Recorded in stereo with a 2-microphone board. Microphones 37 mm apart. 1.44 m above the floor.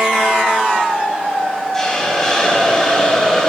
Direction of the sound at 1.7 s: 15° left (ahead or behind).